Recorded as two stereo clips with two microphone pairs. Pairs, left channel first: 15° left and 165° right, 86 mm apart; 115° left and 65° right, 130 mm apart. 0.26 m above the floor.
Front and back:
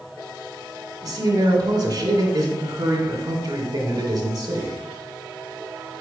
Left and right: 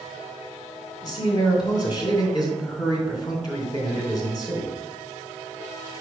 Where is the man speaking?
165° left, 2.5 m.